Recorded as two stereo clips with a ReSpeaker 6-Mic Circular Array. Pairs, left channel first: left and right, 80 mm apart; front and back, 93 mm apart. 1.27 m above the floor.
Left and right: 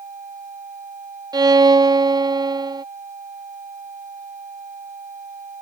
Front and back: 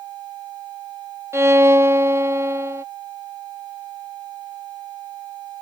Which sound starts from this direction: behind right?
A violin, at 1.3 s.